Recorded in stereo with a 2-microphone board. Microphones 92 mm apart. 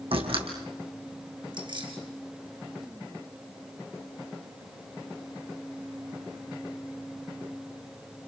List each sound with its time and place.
0.1 s a door slam: 70° right (ahead or behind), 4 m
1.5 s keys jangling: 55° right (ahead or behind), 4.5 m